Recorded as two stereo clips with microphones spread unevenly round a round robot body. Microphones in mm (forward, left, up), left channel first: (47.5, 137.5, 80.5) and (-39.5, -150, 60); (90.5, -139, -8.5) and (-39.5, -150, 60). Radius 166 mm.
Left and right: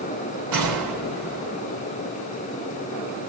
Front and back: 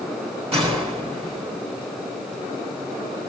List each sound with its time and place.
0.5 s a gunshot: 130° right, 5.5 m